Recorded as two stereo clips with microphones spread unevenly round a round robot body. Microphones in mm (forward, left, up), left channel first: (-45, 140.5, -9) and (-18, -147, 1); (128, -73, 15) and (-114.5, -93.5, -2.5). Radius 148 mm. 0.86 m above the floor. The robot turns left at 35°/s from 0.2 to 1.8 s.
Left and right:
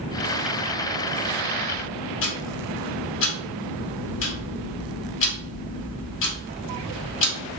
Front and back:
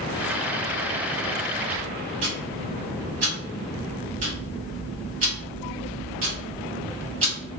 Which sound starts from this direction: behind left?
Ticking, at 2.2 s.